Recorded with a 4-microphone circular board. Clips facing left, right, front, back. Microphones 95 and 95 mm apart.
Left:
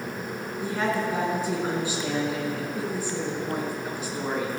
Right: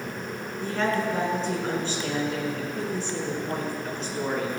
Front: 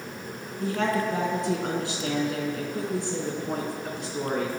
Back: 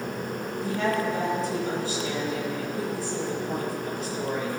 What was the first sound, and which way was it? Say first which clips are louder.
A woman speaking: right 1 dB, front 1 dB; 10° left.